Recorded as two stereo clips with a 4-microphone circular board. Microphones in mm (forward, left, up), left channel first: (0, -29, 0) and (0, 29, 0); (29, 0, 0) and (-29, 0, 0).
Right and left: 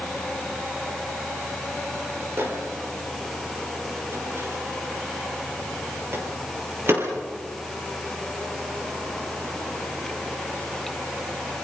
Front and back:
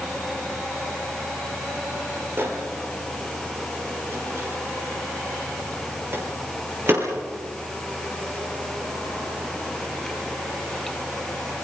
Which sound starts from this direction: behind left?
A microwave, at 2.4 s.